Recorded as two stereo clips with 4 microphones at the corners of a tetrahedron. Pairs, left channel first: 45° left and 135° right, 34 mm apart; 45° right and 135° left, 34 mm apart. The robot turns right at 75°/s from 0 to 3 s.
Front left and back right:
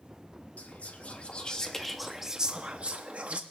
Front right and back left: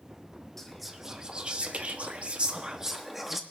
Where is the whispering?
30° left, 0.8 m; by 3.4 s 145° right, 0.8 m.